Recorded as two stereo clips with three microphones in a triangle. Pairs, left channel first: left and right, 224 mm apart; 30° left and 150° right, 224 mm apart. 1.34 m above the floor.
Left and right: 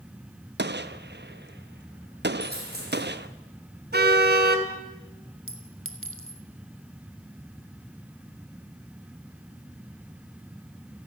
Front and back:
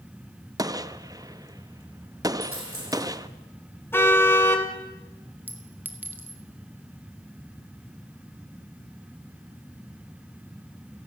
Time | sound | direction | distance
0.6 | a gunshot | 80° right | 0.9 m
2.4 | a dropped coin | 135° right | 7 m
3.9 | a car horn | 50° right | 2.5 m
5.5 | a clink | 70° right | 2 m